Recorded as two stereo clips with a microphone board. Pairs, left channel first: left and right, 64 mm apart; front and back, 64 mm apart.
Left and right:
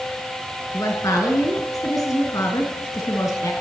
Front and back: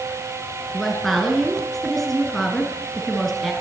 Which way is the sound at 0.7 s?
85° left.